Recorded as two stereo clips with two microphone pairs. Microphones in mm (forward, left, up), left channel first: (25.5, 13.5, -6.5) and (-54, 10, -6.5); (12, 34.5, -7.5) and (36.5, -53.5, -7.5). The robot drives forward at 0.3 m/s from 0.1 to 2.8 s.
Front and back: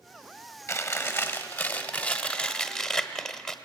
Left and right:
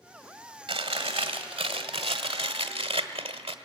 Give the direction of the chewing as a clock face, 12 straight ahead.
2 o'clock.